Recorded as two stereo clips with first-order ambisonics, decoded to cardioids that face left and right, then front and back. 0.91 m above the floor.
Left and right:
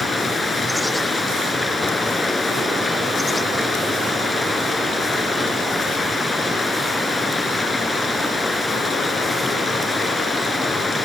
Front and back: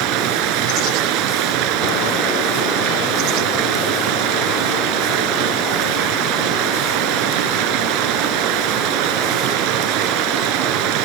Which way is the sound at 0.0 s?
170° left.